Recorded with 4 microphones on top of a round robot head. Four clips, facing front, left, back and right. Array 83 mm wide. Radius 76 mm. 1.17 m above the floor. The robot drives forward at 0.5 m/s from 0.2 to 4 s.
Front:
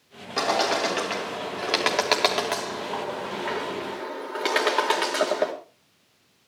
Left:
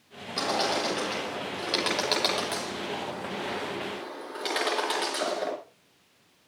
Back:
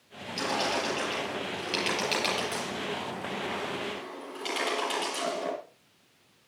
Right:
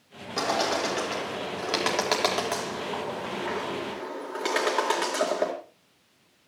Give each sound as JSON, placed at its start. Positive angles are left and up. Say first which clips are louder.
{"t": 0.4, "sound": "a bird", "louder": "right 2 dB, front 6 dB", "azimuth_deg": -15, "distance_m": 6.5}